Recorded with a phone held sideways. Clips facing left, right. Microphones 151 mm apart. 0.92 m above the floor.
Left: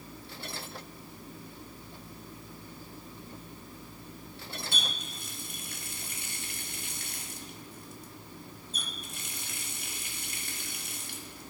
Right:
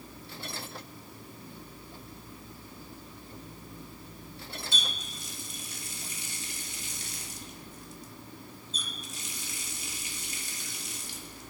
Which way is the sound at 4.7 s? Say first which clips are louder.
Left 1 dB; 55° left (ahead or behind).